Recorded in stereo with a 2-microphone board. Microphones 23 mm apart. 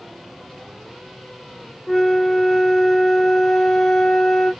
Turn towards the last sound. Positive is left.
turn(degrees=10)  # may be behind; listen again after turning